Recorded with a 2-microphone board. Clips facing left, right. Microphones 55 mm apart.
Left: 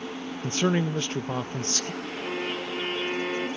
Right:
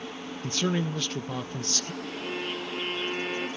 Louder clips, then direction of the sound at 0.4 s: Left 3 dB; 25° left (ahead or behind).